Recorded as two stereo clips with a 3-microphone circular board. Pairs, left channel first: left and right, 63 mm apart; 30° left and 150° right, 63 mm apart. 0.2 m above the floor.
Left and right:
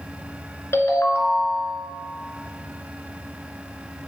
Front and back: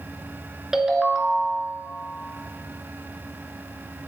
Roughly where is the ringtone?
Behind left.